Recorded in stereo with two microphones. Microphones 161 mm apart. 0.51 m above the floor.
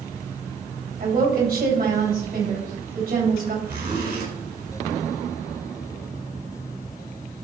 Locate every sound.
1.0 s a woman speaking: 70° right (ahead or behind), 3.5 m
3.6 s a zipper: 85° right, 4.5 m